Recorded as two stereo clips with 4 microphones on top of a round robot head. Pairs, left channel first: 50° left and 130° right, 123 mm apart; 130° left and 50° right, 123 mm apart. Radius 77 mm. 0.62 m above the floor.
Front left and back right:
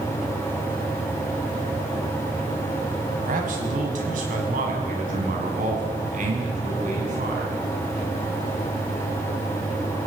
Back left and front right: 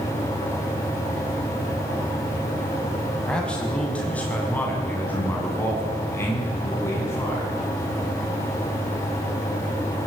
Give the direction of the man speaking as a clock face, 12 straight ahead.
5 o'clock.